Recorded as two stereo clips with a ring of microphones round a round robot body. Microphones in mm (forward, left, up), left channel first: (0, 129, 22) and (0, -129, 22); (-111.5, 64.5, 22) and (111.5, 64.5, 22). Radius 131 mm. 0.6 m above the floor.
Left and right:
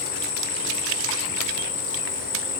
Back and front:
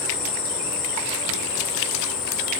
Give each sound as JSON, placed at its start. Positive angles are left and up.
{"t": 0.0, "sound": "an insect", "azimuth_deg": 145, "distance_m": 2.5}